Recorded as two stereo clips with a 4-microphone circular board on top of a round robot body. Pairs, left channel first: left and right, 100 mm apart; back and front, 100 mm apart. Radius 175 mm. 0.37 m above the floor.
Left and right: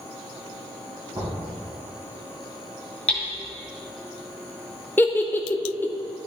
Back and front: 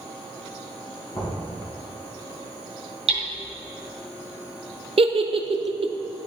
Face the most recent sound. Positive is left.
turn(degrees=20)